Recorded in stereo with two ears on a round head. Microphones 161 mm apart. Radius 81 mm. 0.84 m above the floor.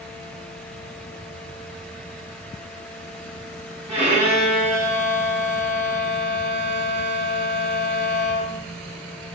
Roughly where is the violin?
Right.